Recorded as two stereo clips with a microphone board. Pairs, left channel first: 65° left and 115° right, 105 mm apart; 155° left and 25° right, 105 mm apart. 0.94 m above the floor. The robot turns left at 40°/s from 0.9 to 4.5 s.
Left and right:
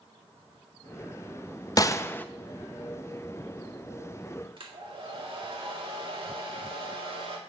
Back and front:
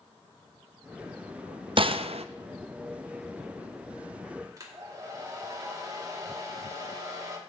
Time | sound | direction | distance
1.8 | a gunshot | 15° left | 0.5 m
4.6 | a hair dryer | 80° right | 1.9 m